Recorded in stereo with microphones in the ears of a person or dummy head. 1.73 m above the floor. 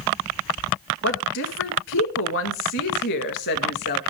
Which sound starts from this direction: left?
A woman speaking, at 1.0 s.